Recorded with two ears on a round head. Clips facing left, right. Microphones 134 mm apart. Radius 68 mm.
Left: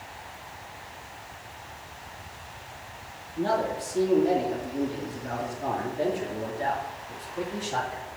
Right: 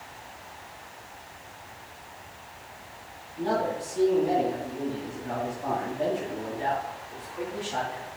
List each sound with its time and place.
3.4 s a man speaking: 60° left (ahead or behind), 5.5 m; by 8.1 s 40° left (ahead or behind), 6.5 m